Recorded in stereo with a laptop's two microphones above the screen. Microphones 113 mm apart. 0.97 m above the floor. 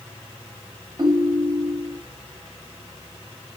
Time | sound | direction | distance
1.0 | a ringtone | 40° right (ahead or behind) | 0.6 m